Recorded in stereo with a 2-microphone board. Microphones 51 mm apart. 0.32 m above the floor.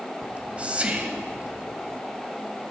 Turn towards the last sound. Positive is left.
turn(degrees=-25)  # may be behind; listen again after turning